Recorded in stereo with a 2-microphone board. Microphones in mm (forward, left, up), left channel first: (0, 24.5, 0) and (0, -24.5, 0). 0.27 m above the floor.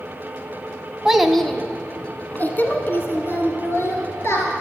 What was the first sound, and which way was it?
A child speaking, 10° right (ahead or behind).